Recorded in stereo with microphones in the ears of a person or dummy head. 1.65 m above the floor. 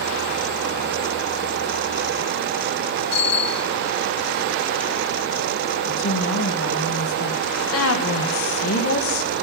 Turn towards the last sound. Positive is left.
turn(degrees=80)